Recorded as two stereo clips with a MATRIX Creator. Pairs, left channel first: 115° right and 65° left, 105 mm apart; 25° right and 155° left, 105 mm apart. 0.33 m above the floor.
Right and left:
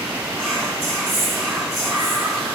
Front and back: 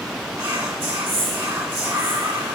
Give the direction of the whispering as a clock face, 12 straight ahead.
7 o'clock.